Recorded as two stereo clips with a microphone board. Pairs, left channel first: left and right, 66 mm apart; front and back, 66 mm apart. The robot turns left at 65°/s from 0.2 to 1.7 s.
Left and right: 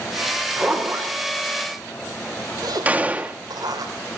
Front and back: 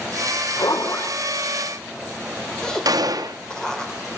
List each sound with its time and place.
0.6 s a zipper: 5° right, 5.5 m; by 3.9 s 80° right, 5.5 m
2.9 s a gunshot: 155° right, 1.6 m